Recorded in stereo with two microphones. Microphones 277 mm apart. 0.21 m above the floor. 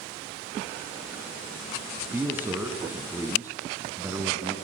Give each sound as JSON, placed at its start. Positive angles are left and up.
{"t": 2.1, "sound": "a man speaking", "side_deg": -5, "distance_m": 1.7}